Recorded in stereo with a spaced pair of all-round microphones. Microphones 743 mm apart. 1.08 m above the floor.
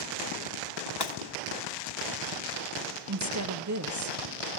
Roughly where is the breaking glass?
Left.